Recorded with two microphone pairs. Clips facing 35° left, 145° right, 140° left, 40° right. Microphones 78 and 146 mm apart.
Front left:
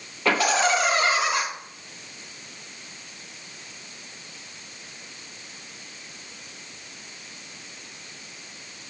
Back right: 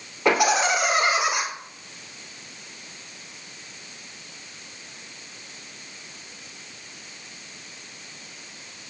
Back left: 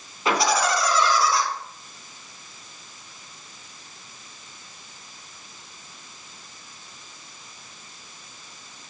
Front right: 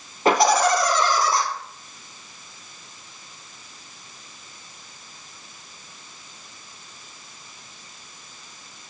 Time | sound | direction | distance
0.2 | laughter | 75° right | 2.5 m